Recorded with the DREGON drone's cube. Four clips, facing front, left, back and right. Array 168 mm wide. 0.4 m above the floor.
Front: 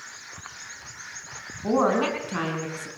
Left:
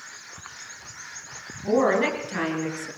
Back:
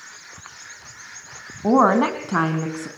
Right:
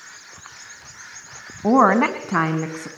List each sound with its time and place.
1.6 s a woman speaking: 125° right, 3.5 m; by 2.9 s 130° right, 4 m